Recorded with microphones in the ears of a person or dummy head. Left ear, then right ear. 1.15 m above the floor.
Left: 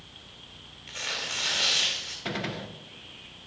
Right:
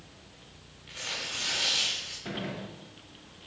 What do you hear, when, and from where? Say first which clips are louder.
0.9 s tearing paper: left 3 dB; 25° left (ahead or behind), 2.5 m
2.2 s a gunshot: left 4 dB; 40° left (ahead or behind), 0.7 m